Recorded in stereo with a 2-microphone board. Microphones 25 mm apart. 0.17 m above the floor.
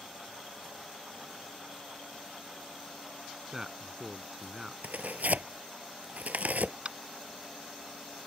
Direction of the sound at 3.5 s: 15° right (ahead or behind).